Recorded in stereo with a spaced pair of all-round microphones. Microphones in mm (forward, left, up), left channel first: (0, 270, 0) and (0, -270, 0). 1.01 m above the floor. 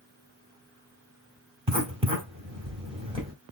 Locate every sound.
1.7 s writing: 10° right (ahead or behind), 1.9 m